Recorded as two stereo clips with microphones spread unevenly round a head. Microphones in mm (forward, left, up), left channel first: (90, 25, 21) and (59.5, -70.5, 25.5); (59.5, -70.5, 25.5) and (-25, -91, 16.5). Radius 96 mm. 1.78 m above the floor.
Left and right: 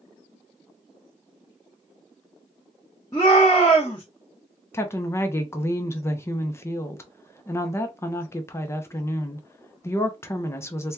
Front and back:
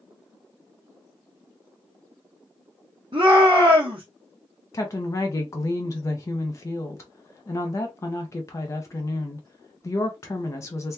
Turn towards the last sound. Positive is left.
turn(degrees=20)